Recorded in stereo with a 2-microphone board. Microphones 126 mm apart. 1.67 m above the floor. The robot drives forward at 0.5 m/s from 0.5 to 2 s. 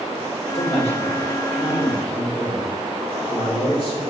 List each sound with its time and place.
0.6 s a man speaking: 55° left (ahead or behind), 0.9 m; by 4.0 s 45° left (ahead or behind), 1.1 m